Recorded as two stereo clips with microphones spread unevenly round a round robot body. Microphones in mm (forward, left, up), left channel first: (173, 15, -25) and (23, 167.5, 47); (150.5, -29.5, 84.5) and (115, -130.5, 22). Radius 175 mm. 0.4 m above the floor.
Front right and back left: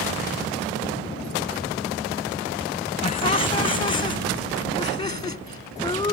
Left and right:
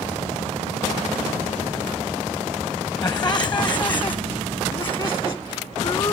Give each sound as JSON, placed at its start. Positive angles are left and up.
{"t": 3.0, "sound": "laughter", "azimuth_deg": 10}